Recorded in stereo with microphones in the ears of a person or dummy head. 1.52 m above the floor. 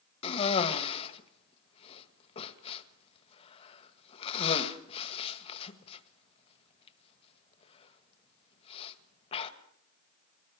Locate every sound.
0.2 s a cough: 35° left (ahead or behind), 1.8 m